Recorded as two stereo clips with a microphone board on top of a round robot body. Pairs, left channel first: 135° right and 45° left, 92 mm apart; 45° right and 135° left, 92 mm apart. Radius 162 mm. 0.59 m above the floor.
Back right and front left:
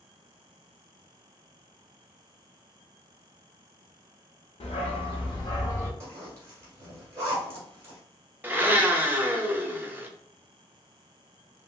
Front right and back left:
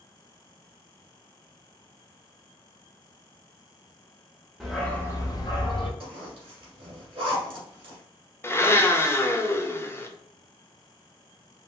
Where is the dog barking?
140° right, 0.8 m; by 5.9 s 75° right, 1.0 m.